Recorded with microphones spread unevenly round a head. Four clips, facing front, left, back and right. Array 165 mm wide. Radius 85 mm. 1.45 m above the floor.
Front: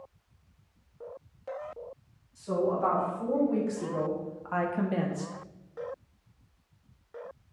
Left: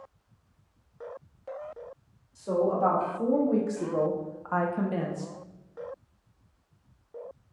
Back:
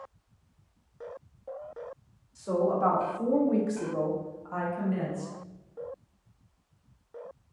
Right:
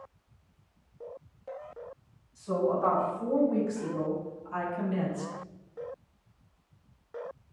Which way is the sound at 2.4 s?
130° left.